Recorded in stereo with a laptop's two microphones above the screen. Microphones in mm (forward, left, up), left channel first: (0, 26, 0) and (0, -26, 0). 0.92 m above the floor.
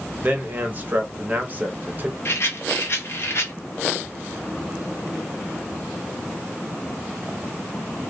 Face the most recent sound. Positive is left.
turn(degrees=50)  # may be behind; listen again after turning